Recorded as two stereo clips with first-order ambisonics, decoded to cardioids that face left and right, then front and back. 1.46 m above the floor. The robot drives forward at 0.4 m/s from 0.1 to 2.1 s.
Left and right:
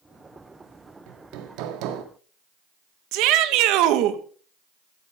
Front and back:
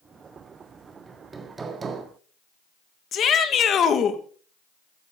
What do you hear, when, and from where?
1.1 s hammering: 100° right, 1.8 m; by 2.0 s 110° right, 1.9 m
3.1 s a shout: 60° right, 1.7 m